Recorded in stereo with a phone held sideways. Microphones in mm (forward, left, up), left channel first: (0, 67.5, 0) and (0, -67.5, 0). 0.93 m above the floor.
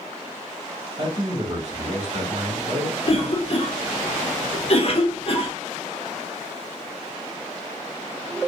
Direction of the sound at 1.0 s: 45° right (ahead or behind).